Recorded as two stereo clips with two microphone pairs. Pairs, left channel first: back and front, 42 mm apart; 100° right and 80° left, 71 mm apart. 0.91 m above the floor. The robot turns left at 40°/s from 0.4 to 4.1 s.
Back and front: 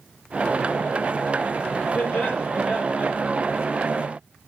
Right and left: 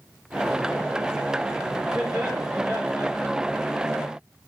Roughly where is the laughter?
Behind left.